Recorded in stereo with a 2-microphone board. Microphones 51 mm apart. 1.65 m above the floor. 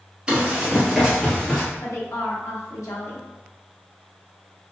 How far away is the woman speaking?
About 0.9 m.